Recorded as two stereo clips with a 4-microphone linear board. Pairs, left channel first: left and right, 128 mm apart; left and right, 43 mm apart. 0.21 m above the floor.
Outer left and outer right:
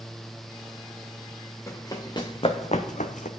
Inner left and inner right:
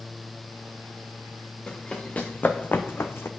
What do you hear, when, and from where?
1.7 s running footsteps: 20° left (ahead or behind), 1.2 m; by 3.3 s 75° left (ahead or behind), 0.7 m